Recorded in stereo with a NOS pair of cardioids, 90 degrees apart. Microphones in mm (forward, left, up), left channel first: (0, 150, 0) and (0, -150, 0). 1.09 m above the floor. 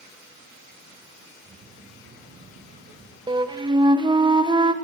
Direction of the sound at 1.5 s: 35° right.